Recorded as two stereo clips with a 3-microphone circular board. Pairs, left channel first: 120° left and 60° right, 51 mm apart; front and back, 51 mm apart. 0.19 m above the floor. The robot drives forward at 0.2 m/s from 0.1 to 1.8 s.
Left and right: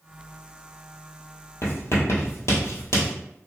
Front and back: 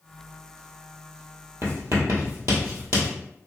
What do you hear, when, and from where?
1.6 s writing: 150° left, 1.2 m